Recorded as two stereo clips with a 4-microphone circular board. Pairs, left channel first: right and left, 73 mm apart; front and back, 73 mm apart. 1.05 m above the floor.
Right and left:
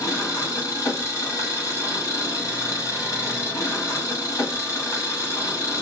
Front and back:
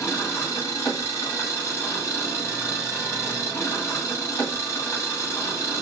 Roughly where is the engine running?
Ahead right.